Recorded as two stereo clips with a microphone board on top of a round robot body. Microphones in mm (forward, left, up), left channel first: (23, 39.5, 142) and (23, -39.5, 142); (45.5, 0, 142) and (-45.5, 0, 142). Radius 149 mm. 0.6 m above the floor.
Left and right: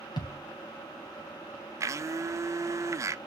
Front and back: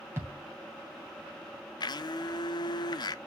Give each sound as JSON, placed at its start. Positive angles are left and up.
{"t": 0.2, "sound": "a thud", "azimuth_deg": 120, "distance_m": 3.0}
{"t": 1.8, "sound": "a blender", "azimuth_deg": -40, "distance_m": 0.7}